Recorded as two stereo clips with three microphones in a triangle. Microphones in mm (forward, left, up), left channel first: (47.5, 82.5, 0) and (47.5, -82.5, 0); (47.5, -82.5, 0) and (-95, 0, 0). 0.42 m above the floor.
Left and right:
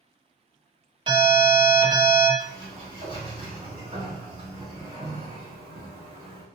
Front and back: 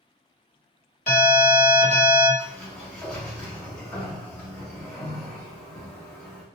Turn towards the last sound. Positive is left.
turn(degrees=-95)